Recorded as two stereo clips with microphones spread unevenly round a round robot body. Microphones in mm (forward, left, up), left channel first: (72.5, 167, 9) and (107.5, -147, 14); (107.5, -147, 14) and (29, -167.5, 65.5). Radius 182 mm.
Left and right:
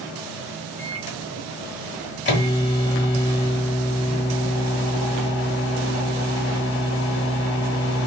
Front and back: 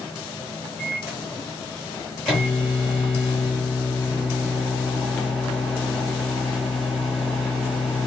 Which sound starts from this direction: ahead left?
A microwave, at 0.8 s.